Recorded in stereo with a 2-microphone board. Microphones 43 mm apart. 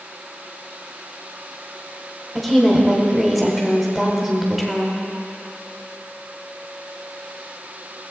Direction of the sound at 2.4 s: Centre (ahead or behind).